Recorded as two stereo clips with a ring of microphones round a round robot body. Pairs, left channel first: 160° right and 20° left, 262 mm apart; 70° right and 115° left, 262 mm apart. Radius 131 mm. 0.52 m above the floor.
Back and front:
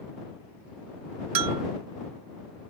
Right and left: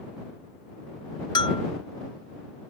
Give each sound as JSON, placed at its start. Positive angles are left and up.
{"t": 1.4, "sound": "a bell", "azimuth_deg": 10}